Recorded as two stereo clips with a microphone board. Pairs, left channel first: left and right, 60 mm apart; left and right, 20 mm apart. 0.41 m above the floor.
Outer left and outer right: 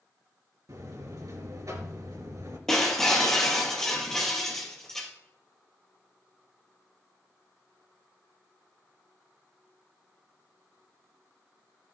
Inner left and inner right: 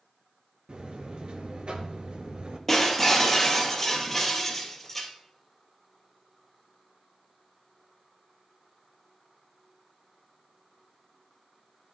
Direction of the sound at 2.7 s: 10° left (ahead or behind).